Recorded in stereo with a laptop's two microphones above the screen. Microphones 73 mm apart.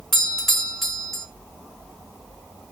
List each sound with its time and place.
0.1 s a doorbell: 5° left (ahead or behind), 1.1 m